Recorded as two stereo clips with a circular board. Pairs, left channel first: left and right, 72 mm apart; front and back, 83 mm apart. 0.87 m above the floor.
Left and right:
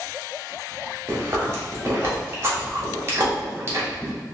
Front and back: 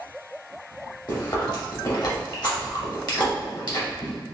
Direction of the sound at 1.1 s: 35° right.